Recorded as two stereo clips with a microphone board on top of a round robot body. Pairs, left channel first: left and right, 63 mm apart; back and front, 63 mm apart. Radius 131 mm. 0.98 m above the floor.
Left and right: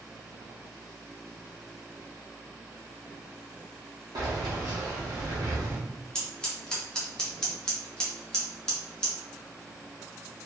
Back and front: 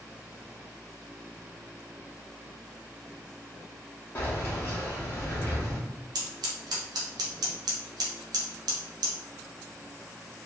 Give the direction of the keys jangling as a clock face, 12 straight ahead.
4 o'clock.